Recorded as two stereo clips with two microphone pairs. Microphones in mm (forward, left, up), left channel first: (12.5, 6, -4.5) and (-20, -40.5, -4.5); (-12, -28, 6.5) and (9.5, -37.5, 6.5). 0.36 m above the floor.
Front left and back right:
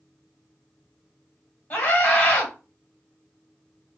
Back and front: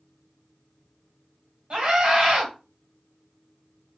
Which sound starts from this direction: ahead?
A scream, at 1.7 s.